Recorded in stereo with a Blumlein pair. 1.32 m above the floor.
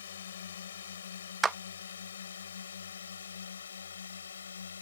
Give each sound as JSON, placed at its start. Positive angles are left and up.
{"t": 0.0, "sound": "a drone", "azimuth_deg": 65}
{"t": 1.4, "sound": "a clap", "azimuth_deg": -15}